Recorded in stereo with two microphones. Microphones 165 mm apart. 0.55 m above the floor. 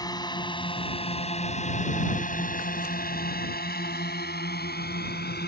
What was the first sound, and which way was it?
A drone, 25° left (ahead or behind).